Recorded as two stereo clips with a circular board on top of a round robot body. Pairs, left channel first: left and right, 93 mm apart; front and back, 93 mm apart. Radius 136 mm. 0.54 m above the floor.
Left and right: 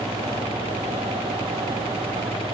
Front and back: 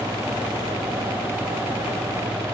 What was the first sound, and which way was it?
Only background noise.